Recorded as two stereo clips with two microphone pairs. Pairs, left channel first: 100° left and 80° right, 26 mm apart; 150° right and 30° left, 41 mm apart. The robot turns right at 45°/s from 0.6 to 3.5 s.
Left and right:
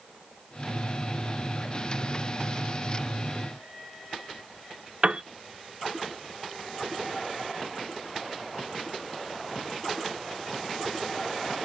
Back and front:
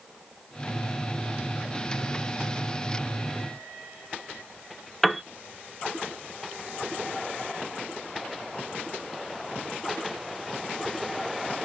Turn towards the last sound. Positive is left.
turn(degrees=-65)